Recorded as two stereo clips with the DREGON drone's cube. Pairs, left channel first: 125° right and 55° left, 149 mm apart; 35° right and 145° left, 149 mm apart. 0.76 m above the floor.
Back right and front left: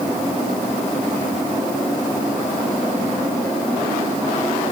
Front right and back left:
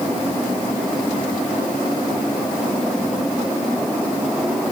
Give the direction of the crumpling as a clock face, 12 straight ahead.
I don't hear crumpling.